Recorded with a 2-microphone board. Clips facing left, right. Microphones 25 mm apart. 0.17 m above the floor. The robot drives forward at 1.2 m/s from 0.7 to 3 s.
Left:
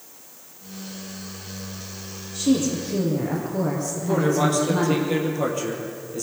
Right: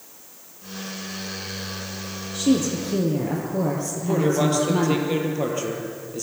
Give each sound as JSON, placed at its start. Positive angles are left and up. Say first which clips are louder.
{"t": 2.3, "sound": "a woman speaking", "louder": "even", "side_deg": -30, "distance_m": 4.5}
{"t": 4.0, "sound": "a man speaking", "louder": "even", "side_deg": -5, "distance_m": 3.5}